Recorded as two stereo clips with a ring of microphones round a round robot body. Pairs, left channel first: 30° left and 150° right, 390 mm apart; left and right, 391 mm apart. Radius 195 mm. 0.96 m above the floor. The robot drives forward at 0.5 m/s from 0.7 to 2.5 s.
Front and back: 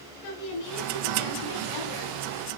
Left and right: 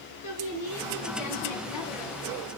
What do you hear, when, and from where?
0.2 s a woman speaking: 35° left, 7.5 m; by 2.5 s 40° left, 6.5 m